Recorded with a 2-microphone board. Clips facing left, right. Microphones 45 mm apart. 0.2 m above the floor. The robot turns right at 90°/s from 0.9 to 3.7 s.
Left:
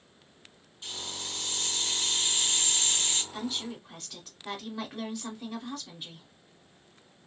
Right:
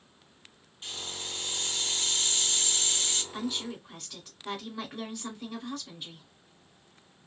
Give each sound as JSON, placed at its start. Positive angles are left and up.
{"t": 0.8, "sound": "a hiss", "azimuth_deg": -105, "distance_m": 1.5}
{"t": 3.3, "sound": "a woman speaking", "azimuth_deg": -20, "distance_m": 1.4}